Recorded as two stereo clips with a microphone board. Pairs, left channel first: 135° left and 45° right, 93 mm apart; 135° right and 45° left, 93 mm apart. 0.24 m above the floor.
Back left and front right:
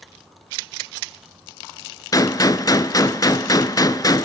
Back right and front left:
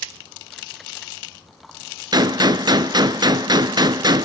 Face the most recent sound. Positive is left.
turn(degrees=85)